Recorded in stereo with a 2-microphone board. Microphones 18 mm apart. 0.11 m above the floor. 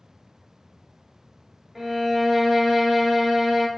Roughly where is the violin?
Right.